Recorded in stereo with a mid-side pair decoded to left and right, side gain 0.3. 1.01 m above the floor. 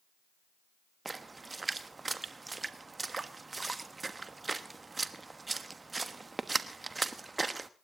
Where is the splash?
40° right, 1.2 m.